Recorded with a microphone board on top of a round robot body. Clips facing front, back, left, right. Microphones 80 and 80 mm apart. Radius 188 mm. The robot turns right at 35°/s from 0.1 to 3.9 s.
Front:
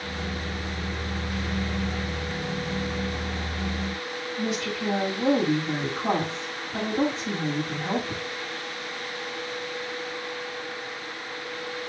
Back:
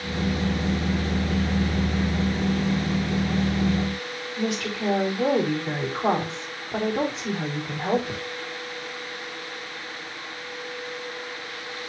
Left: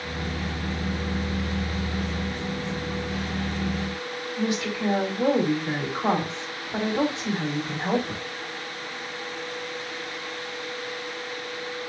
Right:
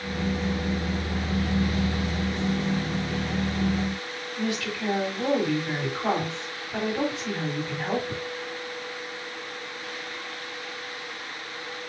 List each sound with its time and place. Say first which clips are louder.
4.4 s a woman speaking: back 2 dB, left 2 dB; 160° left, 4.5 m